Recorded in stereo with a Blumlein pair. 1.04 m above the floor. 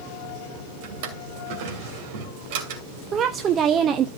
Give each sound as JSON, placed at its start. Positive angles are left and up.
{"t": 0.8, "sound": "a drawer", "azimuth_deg": -50, "distance_m": 2.5}
{"t": 3.1, "sound": "a woman speaking", "azimuth_deg": -25, "distance_m": 0.9}